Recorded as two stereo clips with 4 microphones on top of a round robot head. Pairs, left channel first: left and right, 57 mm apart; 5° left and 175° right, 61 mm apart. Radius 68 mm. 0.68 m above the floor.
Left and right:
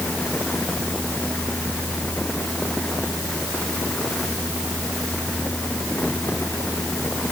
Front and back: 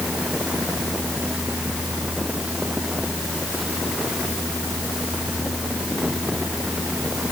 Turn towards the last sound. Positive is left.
No sound to turn to.